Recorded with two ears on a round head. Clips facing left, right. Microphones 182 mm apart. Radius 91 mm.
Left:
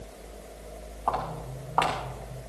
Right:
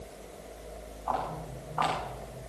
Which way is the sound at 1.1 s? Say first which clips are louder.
Left 2 dB; 75° left (ahead or behind).